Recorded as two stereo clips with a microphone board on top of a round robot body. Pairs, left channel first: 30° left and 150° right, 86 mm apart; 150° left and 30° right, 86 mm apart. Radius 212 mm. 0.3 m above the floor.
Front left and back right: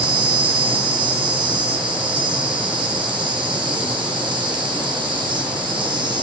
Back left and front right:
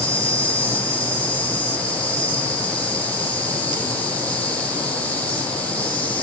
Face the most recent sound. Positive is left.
turn(degrees=-140)